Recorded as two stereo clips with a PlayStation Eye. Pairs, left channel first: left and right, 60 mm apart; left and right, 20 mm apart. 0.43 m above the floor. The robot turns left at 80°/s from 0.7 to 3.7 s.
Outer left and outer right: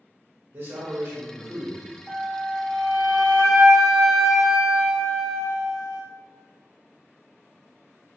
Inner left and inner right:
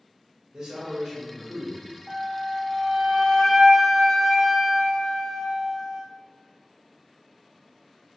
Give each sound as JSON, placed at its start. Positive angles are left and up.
{"t": 0.5, "sound": "a man speaking", "azimuth_deg": -115, "distance_m": 1.2}
{"t": 2.1, "sound": "a flute", "side_deg": -15, "distance_m": 0.6}